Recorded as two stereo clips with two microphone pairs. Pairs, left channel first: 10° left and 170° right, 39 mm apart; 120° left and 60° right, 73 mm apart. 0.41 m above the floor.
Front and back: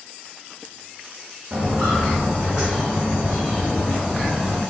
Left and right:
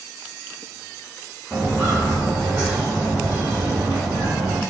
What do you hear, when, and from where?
1.5 s footsteps: 130° right, 1.9 m; by 4.6 s 75° right, 3 m